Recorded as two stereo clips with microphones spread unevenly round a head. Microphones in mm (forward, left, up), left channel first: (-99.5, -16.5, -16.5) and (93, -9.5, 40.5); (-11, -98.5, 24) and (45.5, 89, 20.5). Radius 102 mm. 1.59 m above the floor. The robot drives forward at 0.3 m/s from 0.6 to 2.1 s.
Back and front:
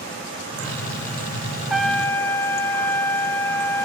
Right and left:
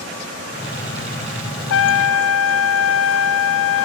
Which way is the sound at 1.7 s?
90° right.